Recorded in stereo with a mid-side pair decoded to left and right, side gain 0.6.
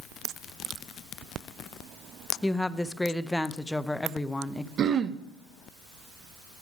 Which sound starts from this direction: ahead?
A woman speaking, at 2.4 s.